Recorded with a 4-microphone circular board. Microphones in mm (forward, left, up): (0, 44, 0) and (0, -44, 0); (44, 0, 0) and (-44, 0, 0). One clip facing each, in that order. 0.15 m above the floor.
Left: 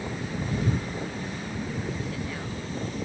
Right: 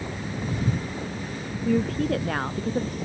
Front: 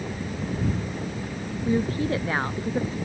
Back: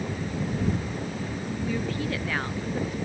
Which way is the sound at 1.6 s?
60° right.